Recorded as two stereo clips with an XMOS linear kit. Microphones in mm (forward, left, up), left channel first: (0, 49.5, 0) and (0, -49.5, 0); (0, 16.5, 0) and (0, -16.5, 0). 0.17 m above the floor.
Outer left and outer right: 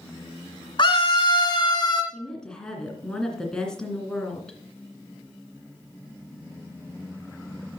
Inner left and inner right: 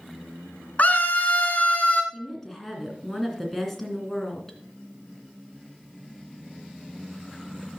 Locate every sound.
0.8 s a scream: 50° left (ahead or behind), 1.9 m; by 2.0 s 40° left (ahead or behind), 2.5 m
2.1 s a woman speaking: 5° left (ahead or behind), 2 m